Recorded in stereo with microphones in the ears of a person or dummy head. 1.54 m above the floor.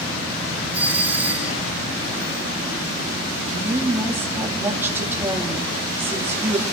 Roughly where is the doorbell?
Centre.